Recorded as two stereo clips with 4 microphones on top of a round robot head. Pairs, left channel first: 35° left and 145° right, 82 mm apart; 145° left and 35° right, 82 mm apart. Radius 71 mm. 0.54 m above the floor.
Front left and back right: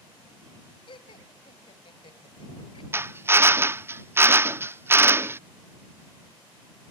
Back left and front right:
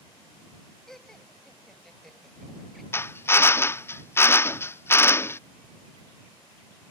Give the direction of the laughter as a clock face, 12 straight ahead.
10 o'clock.